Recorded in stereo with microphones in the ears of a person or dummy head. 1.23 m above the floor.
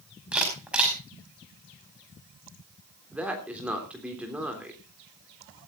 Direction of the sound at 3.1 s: 5° right (ahead or behind).